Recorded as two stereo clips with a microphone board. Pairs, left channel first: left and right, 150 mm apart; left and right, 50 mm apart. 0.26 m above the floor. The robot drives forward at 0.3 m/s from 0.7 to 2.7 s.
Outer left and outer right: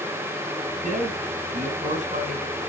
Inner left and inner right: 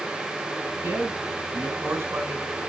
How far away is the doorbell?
I don't hear a doorbell.